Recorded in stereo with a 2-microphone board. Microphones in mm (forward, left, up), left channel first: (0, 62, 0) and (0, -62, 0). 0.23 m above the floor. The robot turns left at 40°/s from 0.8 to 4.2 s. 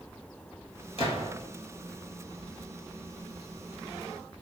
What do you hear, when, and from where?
1.0 s a gunshot: 60° left (ahead or behind), 0.7 m; by 1.3 s 45° left (ahead or behind), 0.7 m